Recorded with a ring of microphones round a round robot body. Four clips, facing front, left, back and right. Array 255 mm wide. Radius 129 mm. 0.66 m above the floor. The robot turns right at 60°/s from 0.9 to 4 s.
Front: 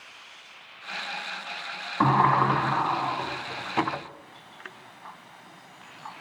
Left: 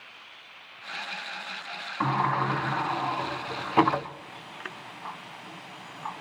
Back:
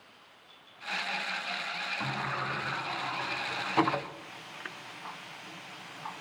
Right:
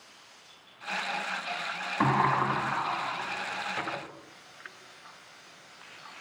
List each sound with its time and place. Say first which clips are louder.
2.0 s a sliding door: right 1 dB, front 16 dB; 25° right, 0.7 m; by 6.2 s 95° left, 0.7 m